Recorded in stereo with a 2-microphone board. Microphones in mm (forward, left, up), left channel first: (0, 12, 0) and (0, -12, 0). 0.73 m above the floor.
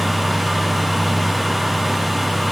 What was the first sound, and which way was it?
Only background noise.